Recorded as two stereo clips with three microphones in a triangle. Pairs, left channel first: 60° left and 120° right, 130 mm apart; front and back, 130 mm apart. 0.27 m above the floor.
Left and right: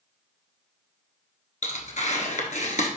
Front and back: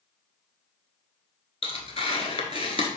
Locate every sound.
1.6 s tearing paper: 40° left, 1.0 m